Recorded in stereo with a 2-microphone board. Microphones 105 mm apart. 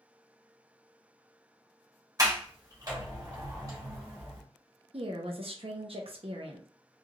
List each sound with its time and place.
2.2 s a sliding door: 35° right (ahead or behind), 1.1 m
4.9 s a woman speaking: 65° right (ahead or behind), 0.7 m